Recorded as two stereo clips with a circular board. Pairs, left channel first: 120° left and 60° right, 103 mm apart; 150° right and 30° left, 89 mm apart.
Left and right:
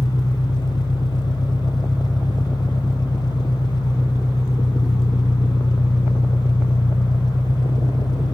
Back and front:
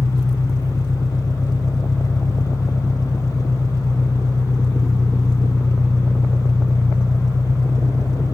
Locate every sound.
0.0 s an engine running: 165° left, 2.5 m